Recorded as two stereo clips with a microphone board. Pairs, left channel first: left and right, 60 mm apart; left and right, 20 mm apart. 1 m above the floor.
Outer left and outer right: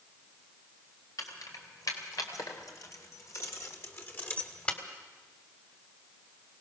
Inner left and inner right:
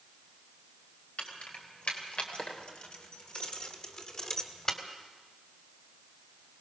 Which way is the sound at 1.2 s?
90° left.